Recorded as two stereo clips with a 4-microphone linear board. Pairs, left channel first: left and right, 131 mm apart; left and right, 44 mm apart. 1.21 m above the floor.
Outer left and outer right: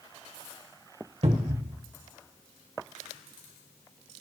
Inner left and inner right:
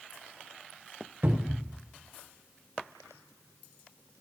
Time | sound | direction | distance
1.2 | a cupboard door | 55° right (ahead or behind) | 1.2 m